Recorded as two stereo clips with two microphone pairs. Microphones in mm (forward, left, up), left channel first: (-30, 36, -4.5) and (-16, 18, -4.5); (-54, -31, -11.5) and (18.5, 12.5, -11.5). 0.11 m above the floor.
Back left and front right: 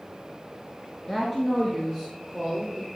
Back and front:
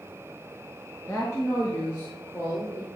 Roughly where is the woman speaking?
Behind right.